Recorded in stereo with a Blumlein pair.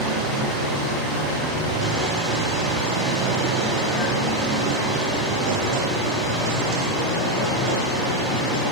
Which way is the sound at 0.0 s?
10° right.